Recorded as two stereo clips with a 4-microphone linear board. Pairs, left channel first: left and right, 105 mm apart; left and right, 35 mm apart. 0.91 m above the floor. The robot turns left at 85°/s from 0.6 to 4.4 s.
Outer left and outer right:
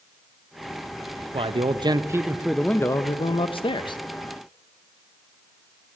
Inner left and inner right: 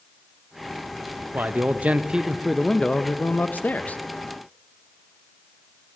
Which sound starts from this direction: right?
A man speaking, at 1.3 s.